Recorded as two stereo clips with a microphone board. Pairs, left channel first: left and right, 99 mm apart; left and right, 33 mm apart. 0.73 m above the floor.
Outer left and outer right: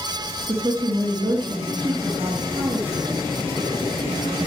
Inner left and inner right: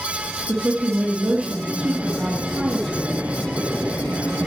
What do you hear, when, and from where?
0.5 s a woman speaking: 50° right (ahead or behind), 1.4 m